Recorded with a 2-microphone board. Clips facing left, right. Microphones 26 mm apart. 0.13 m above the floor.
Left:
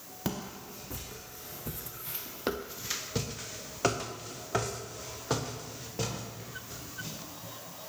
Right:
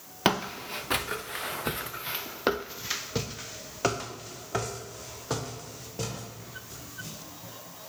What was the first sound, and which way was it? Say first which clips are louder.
Footsteps: right 11 dB; 65° right (ahead or behind).